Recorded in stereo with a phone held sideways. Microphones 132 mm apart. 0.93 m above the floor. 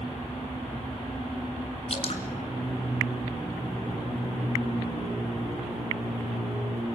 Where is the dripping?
55° left (ahead or behind), 2.5 m.